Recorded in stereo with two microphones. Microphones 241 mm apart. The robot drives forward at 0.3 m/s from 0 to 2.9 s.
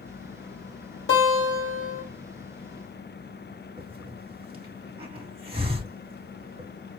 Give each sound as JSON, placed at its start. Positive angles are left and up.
{"t": 1.1, "sound": "a guitar", "side_deg": 55, "distance_m": 2.0}
{"t": 3.8, "sound": "a hiss", "side_deg": -25, "distance_m": 1.3}